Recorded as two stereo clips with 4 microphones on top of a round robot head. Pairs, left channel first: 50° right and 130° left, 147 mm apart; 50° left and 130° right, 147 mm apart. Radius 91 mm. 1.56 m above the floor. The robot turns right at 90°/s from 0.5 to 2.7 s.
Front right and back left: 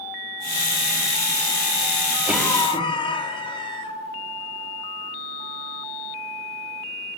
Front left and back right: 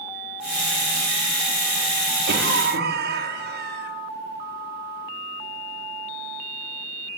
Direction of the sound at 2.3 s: 150° right.